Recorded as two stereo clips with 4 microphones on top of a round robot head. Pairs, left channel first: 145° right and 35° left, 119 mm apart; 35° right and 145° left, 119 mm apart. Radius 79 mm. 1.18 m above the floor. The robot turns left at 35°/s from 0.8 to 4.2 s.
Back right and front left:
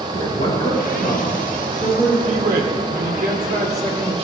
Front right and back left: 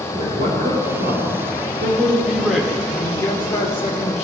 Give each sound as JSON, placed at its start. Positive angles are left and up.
{"t": 0.1, "sound": "a man speaking", "azimuth_deg": 175, "distance_m": 5.0}
{"t": 2.2, "sound": "a man speaking", "azimuth_deg": 65, "distance_m": 3.0}